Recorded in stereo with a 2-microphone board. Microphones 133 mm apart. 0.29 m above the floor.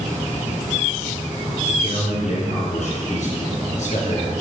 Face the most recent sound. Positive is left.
turn(degrees=70)  # may be behind; listen again after turning